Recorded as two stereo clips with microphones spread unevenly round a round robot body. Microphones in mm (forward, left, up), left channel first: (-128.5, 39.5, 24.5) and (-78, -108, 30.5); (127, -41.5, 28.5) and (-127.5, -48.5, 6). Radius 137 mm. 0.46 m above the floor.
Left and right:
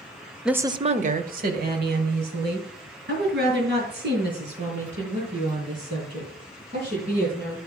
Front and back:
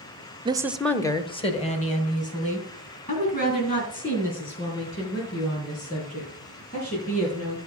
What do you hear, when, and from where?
0.5 s a woman speaking: 160° right, 0.7 m; by 7.6 s 55° right, 8.5 m